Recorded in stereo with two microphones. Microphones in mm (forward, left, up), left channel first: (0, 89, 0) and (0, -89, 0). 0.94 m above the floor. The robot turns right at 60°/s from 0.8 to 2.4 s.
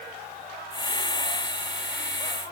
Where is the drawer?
No drawer in this recording.